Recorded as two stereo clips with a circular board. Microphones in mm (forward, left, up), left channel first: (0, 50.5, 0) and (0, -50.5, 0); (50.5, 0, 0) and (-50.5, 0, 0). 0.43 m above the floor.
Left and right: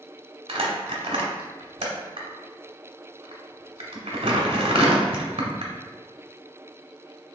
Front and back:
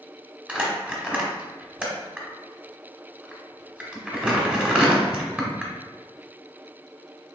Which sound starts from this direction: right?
Crumpling, at 0.5 s.